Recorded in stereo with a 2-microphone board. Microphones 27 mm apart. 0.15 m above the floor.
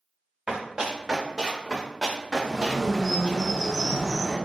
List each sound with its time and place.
0.5 s running footsteps: 30° right (ahead or behind), 2.0 m; by 3.4 s 25° left (ahead or behind), 1.8 m
2.4 s a bird: 10° left (ahead or behind), 1.1 m